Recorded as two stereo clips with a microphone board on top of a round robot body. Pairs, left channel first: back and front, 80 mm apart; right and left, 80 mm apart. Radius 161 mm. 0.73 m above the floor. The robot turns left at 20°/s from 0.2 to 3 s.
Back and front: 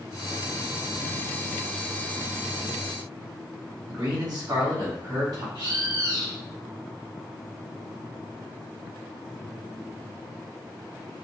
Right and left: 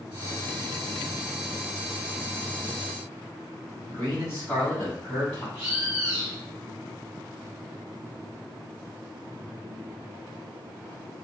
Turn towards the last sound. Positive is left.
turn(degrees=25)